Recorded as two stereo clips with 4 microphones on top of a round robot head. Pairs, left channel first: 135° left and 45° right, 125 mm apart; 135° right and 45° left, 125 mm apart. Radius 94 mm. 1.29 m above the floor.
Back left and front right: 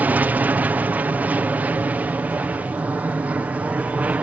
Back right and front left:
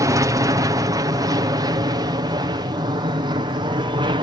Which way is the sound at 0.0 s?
20° left.